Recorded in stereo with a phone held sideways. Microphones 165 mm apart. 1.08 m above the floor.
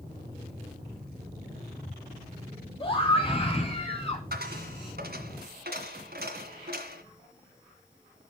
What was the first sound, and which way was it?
A scream, 30° left (ahead or behind).